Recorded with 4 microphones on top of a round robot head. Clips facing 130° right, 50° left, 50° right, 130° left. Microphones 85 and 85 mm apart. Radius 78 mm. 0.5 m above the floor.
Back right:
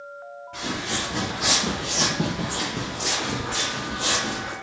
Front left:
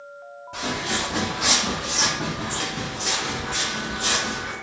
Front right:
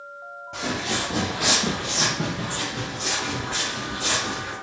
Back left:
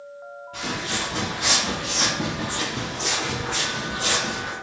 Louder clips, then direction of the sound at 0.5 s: Front left 3 dB, front right 2 dB; 25° right.